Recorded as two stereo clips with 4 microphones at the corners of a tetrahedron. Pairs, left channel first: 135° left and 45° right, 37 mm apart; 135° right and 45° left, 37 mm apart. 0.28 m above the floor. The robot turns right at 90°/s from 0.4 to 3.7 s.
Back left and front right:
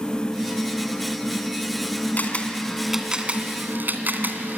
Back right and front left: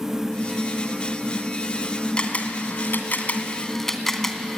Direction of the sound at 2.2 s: 165° left.